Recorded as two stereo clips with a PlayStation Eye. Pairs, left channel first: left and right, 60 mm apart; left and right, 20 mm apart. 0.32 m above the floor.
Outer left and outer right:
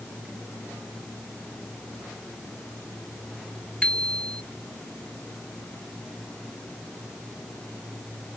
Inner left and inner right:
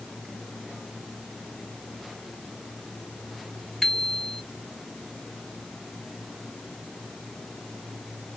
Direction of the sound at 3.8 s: 15° left (ahead or behind).